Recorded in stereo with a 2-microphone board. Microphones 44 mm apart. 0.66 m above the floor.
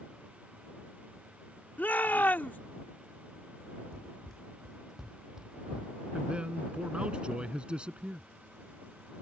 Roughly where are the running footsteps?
Centre.